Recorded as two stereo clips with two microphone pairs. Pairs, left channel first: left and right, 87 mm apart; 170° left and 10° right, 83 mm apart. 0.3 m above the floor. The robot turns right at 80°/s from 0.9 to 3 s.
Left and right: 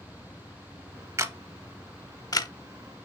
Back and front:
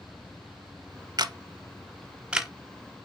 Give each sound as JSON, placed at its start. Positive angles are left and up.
{"t": 1.2, "sound": "a camera shutter", "azimuth_deg": -35, "distance_m": 0.5}